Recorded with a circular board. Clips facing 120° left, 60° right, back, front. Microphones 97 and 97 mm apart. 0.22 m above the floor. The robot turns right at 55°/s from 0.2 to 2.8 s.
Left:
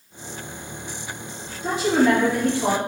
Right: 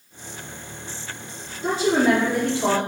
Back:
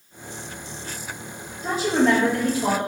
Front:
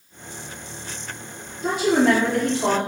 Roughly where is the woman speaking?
Ahead.